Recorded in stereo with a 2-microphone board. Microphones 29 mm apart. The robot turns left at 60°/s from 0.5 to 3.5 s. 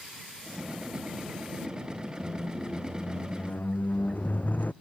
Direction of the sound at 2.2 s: Straight behind.